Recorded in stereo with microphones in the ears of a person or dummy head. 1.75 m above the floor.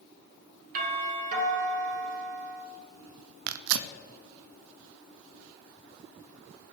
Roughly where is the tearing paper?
Right.